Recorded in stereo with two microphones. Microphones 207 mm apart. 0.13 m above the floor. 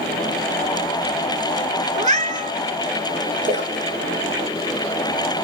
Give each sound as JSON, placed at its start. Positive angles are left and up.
{"t": 1.9, "sound": "a cat meowing", "side_deg": -35, "distance_m": 0.6}
{"t": 3.5, "sound": "a splash", "side_deg": -70, "distance_m": 4.5}